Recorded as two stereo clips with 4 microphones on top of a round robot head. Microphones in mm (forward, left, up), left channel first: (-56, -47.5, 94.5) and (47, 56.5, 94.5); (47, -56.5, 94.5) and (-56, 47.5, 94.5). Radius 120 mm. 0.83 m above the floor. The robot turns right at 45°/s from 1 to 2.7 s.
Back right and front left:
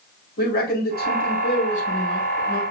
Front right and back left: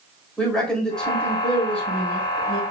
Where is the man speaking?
130° right, 4 m; by 2.6 s 60° right, 4 m.